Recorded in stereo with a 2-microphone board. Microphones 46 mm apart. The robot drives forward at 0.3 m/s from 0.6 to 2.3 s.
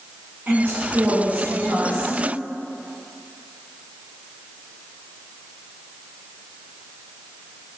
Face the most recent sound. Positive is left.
turn(degrees=-40)  # may be behind; listen again after turning